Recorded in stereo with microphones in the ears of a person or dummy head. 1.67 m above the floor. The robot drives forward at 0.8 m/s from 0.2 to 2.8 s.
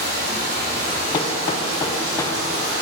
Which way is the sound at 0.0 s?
55° right (ahead or behind).